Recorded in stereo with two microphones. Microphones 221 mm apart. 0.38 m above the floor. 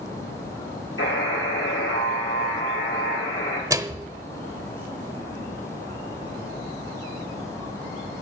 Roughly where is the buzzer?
Left.